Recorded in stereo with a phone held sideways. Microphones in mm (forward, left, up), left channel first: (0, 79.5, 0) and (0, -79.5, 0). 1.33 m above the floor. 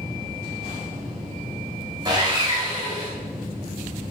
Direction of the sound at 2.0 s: 30° right (ahead or behind).